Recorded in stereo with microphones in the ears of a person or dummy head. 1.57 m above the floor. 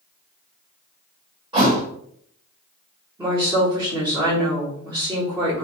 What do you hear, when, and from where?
1.5 s a thud: 25° right (ahead or behind), 1.3 m
3.2 s a woman speaking: 20° right (ahead or behind), 1.5 m